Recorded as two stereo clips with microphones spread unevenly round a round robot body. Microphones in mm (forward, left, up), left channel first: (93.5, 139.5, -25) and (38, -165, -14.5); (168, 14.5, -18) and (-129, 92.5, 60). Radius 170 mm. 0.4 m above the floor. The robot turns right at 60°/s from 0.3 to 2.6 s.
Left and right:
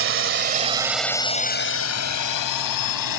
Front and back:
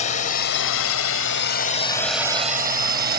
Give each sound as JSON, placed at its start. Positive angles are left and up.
{"t": 0.0, "sound": "a drone", "azimuth_deg": -65}